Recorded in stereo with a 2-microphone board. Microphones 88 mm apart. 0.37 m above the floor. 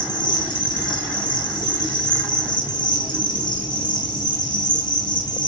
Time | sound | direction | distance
0.0 | an insect | 60° left (ahead or behind) | 2.5 m